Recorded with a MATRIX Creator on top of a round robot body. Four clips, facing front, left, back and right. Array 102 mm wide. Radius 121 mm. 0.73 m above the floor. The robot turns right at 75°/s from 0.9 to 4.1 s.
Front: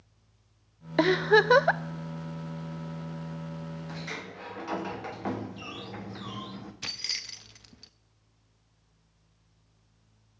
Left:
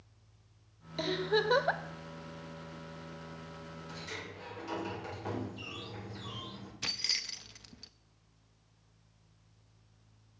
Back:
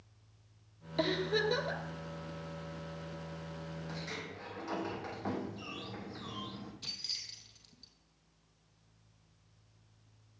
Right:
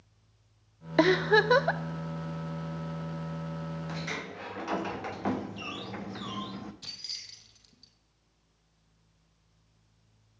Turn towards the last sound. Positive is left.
turn(degrees=45)